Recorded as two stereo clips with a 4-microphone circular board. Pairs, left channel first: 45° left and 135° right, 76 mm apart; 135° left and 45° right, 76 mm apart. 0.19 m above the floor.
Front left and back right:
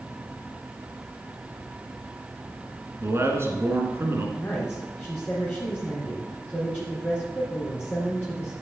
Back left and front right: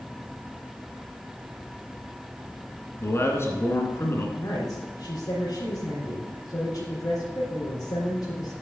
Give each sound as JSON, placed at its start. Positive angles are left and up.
{"t": 3.0, "sound": "a man speaking", "azimuth_deg": 180, "distance_m": 2.0}
{"t": 4.4, "sound": "a woman speaking", "azimuth_deg": 105, "distance_m": 3.0}